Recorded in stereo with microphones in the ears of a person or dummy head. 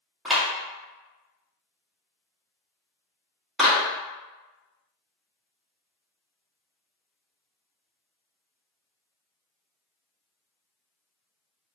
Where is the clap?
5° left (ahead or behind), 1.1 m.